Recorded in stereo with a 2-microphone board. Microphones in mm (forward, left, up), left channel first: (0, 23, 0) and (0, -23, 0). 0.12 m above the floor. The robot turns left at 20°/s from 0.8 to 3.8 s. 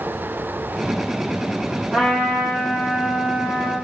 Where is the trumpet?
5° right, 2.5 m; by 3.8 s 40° right, 2.5 m.